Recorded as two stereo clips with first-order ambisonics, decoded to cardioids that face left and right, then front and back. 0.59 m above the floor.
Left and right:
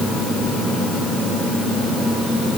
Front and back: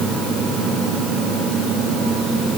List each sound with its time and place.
Only background noise.